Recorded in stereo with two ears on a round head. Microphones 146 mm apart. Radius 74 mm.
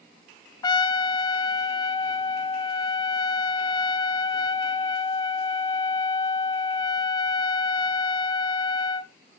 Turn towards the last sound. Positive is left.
turn(degrees=25)  # may be behind; listen again after turning